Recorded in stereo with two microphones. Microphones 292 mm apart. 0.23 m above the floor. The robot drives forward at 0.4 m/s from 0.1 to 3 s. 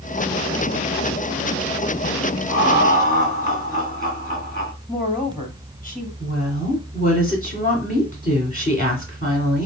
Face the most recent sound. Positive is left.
turn(degrees=30)  # may be behind; listen again after turning